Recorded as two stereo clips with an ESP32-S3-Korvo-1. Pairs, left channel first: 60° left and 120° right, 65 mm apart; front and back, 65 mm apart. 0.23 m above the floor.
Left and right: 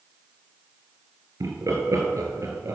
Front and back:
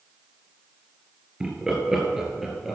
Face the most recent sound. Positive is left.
turn(degrees=-95)